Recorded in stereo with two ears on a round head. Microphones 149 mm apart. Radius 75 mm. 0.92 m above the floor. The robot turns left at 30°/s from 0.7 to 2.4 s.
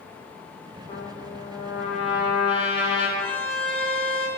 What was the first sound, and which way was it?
A trumpet, 30° left.